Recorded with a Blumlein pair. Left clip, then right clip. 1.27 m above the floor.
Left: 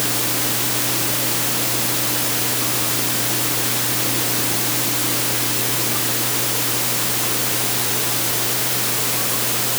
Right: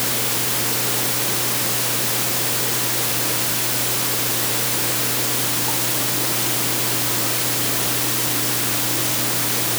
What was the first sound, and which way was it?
Only background noise.